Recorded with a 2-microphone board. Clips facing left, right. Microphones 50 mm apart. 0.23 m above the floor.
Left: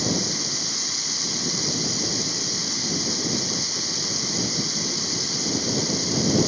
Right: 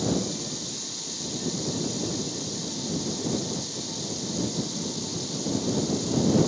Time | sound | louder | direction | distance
0.0 | running water | even | 70° left (ahead or behind) | ?